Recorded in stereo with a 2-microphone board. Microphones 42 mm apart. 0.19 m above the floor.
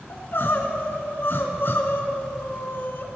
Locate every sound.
0.1 s crying: 55° left (ahead or behind), 1.2 m